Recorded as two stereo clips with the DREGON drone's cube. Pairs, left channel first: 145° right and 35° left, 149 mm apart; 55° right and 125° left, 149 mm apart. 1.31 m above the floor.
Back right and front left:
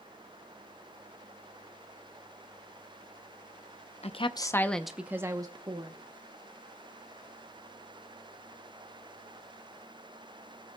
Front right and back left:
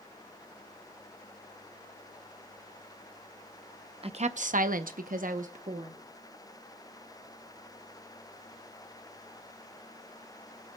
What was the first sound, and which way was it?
A woman speaking, 170° left.